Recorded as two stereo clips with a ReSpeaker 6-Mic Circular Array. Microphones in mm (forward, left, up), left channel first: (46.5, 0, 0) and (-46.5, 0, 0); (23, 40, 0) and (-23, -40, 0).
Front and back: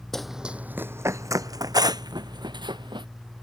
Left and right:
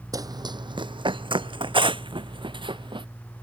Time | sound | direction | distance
0.1 | running footsteps | 85° right | ?